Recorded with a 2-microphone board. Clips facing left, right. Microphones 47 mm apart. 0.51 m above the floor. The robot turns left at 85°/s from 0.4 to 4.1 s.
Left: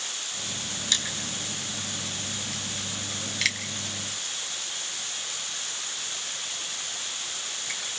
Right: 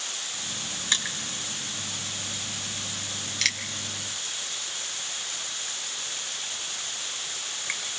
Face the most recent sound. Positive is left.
turn(degrees=-45)  # may be behind; listen again after turning